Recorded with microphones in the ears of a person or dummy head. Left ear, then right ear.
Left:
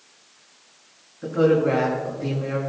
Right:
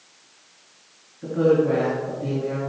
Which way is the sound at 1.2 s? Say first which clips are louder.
Even; 85° left.